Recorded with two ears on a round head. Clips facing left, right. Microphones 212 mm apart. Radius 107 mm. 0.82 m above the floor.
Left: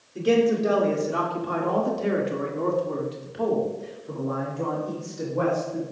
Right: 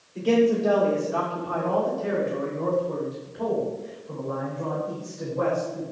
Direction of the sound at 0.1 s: 15° left (ahead or behind).